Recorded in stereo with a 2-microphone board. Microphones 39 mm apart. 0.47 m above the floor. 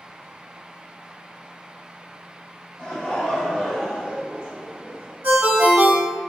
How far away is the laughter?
About 1.0 m.